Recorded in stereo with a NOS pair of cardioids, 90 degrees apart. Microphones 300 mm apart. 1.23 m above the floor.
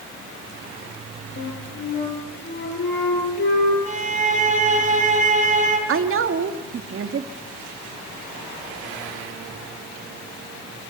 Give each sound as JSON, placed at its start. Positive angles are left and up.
{"t": 1.4, "sound": "a flute", "azimuth_deg": 40, "distance_m": 7.5}
{"t": 3.9, "sound": "a violin", "azimuth_deg": -25, "distance_m": 3.5}
{"t": 5.9, "sound": "a woman speaking", "azimuth_deg": -45, "distance_m": 2.0}